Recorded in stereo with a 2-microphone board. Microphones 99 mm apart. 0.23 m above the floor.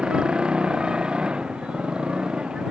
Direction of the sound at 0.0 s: 10° right (ahead or behind).